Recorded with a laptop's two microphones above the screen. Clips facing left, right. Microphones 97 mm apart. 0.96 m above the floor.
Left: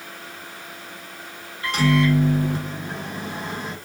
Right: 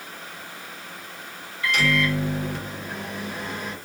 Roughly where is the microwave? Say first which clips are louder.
Left 4 dB; left.